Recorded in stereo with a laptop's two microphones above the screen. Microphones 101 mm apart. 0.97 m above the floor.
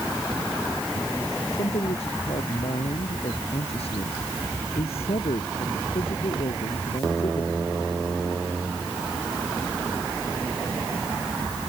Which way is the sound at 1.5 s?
85° left.